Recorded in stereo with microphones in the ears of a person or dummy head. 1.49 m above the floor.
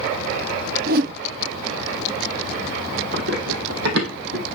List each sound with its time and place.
0.9 s a whoosh: 60° right (ahead or behind), 0.6 m
3.1 s running footsteps: 65° right (ahead or behind), 4 m